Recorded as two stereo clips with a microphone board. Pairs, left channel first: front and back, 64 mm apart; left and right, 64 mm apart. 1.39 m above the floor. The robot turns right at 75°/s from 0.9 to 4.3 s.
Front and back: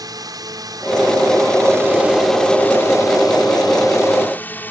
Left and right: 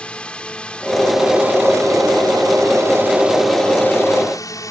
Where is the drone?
165° left; by 4.7 s 65° left.